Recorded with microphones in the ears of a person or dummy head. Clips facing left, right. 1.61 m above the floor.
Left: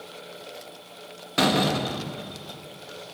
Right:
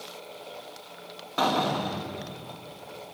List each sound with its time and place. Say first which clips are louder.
1.4 s a door slam: left 3 dB; 30° left (ahead or behind), 1.3 m